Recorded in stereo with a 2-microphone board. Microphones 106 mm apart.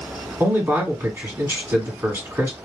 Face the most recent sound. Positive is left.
turn(degrees=-25)  # may be behind; listen again after turning